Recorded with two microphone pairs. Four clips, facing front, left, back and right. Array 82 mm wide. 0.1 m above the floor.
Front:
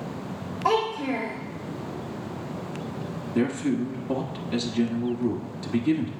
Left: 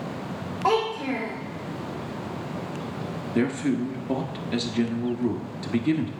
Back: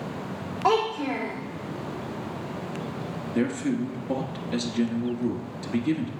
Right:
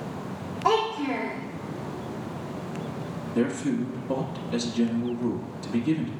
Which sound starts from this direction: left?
A man speaking, at 3.4 s.